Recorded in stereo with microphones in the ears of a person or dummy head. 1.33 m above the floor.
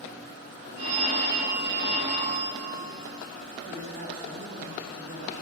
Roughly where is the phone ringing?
Right.